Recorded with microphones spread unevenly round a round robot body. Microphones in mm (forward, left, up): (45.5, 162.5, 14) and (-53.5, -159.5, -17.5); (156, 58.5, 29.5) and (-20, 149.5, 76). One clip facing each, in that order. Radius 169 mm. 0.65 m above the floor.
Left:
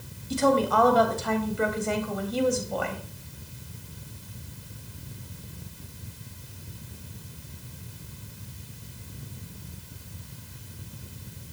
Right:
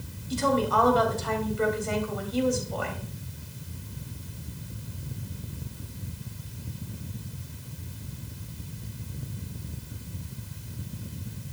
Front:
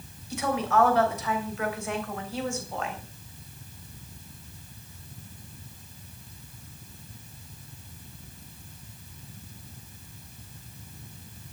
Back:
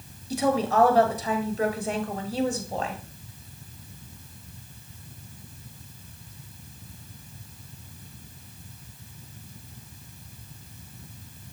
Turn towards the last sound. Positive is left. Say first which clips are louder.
# left 3 dB, back 3 dB
turn(degrees=95)